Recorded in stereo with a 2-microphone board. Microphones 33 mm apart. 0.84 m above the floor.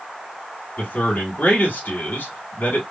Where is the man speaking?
70° left (ahead or behind), 2 m.